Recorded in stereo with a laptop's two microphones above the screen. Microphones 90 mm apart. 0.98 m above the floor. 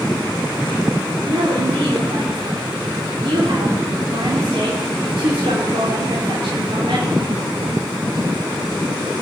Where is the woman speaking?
75° right (ahead or behind), 3 m.